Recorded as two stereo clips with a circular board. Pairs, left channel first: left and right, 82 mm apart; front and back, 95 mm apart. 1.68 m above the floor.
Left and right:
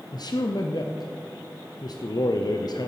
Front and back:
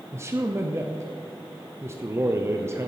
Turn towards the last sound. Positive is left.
turn(degrees=120)